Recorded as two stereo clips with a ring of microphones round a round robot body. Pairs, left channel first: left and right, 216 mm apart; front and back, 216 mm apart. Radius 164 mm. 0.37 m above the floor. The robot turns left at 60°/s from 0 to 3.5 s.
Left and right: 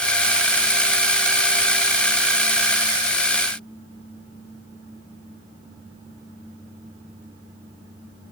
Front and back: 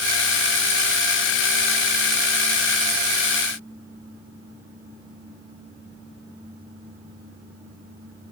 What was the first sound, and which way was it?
Only background noise.